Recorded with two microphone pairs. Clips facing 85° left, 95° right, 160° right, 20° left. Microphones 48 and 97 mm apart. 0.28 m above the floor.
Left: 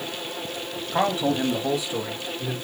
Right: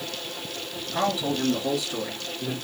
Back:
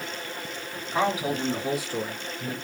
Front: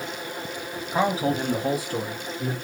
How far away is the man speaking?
About 1.6 m.